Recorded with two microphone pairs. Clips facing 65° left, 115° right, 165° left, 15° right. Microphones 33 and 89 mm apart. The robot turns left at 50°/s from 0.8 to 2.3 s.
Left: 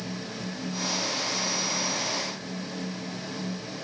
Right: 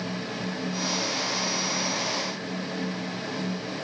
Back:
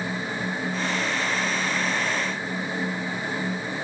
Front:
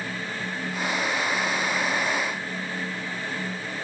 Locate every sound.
Only background noise.